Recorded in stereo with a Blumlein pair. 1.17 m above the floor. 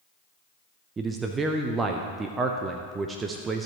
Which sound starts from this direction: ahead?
A man speaking, at 1.0 s.